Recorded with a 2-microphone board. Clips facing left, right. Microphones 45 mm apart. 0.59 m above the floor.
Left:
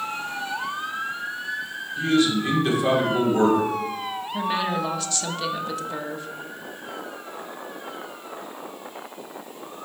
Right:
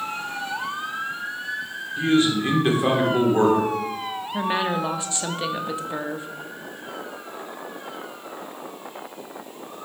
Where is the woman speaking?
20° right (ahead or behind), 0.6 m.